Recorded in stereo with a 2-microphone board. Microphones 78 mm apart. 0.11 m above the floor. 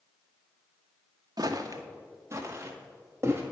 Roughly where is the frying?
No frying in this recording.